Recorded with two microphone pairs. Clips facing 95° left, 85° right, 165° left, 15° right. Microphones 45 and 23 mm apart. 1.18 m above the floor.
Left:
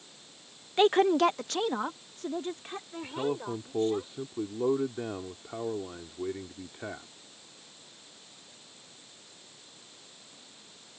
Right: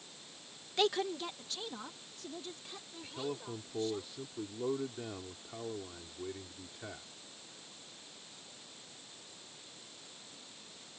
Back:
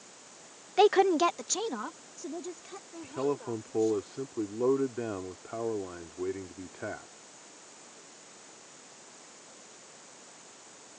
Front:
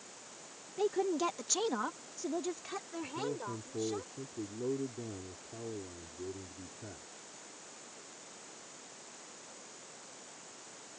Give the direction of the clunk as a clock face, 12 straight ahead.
I don't hear a clunk.